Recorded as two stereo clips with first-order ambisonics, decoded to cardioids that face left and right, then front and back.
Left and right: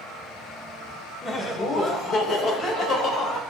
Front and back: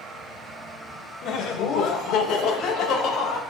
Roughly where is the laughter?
Ahead.